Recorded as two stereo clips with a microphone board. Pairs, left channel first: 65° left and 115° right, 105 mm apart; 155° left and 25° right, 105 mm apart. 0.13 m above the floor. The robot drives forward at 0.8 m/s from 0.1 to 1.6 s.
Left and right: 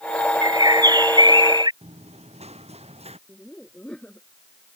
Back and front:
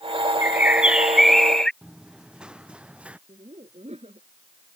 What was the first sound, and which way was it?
A bird, 85° right.